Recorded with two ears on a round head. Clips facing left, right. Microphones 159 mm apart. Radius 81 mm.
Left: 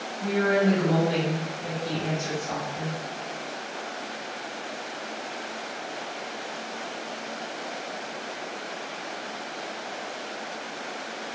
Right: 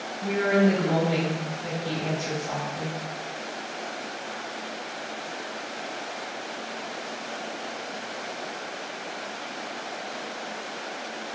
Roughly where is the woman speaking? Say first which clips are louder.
Right 1 dB; left.